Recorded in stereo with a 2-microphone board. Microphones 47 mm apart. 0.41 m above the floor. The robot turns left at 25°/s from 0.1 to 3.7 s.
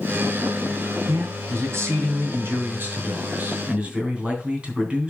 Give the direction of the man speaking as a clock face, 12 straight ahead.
3 o'clock.